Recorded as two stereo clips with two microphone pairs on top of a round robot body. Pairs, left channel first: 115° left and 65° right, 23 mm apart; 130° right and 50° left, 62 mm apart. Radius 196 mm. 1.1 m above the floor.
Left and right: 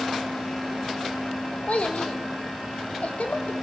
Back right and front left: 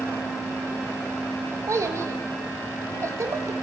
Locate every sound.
1.7 s a child speaking: 90° left, 1.0 m